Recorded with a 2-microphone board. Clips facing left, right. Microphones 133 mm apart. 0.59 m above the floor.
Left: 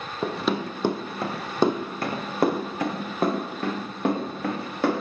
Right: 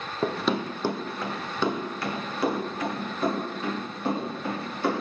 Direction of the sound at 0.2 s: 10° right (ahead or behind).